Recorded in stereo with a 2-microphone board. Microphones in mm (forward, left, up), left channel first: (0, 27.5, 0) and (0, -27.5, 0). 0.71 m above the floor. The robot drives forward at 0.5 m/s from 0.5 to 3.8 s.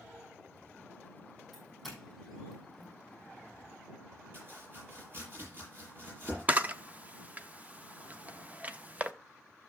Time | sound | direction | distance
1.5 | a doorbell | centre (ahead or behind) | 7 m
4.3 | chopping | 40° right (ahead or behind) | 9.5 m
6.5 | a camera shutter | 30° right (ahead or behind) | 0.7 m